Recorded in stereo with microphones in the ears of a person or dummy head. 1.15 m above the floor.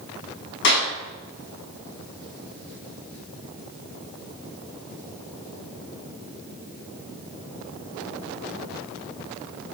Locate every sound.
0.6 s a clap: 60° left (ahead or behind), 7 m